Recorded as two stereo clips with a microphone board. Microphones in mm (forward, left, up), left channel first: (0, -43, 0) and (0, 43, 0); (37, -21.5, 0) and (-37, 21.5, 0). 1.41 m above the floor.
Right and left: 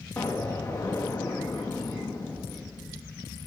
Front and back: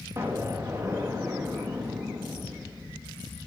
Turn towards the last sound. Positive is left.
turn(degrees=-150)